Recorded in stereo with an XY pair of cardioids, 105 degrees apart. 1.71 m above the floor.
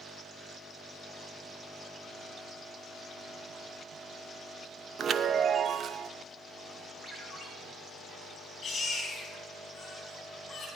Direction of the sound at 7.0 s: 10° left.